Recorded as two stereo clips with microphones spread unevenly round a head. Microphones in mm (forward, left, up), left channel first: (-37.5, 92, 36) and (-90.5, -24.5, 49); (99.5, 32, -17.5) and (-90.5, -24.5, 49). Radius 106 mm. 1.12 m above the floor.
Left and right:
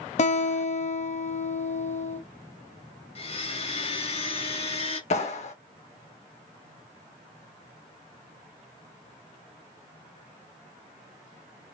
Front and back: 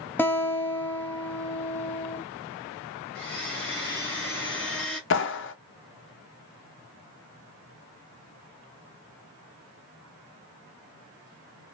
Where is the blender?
95° left, 2.5 m.